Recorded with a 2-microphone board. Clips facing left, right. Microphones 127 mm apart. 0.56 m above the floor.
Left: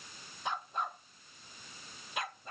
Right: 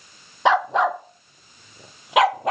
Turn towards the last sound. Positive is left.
turn(degrees=-75)  # may be behind; listen again after turning